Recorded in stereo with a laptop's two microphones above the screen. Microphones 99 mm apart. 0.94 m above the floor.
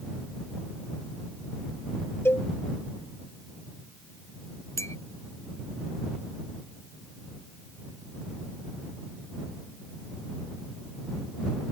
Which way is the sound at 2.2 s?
25° left (ahead or behind).